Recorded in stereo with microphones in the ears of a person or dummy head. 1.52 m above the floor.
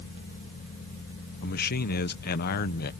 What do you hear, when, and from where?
1.4 s a man speaking: 55° left (ahead or behind)